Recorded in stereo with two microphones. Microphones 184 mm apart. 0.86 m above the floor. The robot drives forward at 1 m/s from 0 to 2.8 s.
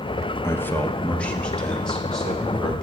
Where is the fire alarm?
I don't hear a fire alarm.